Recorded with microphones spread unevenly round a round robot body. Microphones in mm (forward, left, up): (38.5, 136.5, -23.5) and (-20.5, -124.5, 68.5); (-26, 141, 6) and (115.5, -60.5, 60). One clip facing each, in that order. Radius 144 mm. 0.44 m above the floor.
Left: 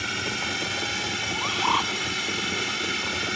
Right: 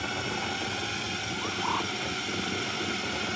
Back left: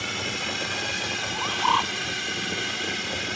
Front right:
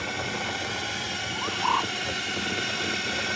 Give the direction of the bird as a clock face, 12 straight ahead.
9 o'clock.